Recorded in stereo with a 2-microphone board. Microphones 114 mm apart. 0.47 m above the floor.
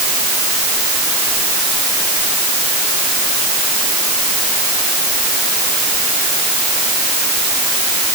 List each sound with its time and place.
Only background noise.